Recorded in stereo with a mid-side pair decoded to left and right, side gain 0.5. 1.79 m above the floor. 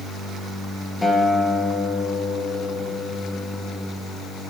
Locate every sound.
1.0 s a guitar: 5° left, 3 m